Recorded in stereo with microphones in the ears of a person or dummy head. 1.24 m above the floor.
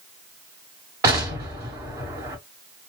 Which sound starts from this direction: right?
An explosion, at 1.0 s.